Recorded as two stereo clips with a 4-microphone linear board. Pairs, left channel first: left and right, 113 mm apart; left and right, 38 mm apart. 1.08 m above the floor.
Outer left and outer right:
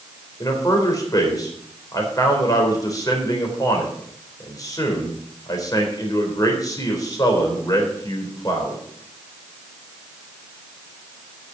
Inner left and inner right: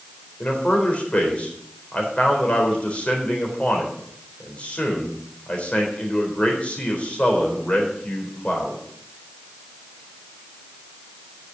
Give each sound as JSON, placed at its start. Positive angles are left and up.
{"t": 0.4, "sound": "a man speaking", "side_deg": 35, "distance_m": 4.0}